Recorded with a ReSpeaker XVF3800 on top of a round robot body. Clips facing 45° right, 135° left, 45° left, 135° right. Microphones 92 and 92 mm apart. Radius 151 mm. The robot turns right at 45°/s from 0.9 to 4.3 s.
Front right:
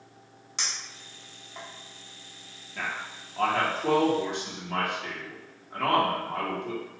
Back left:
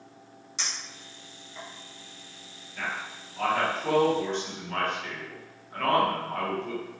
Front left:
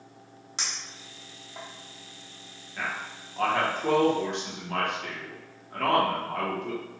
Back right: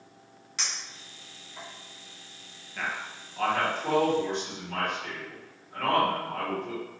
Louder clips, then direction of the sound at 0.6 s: Front right 1 dB, even; 15° right.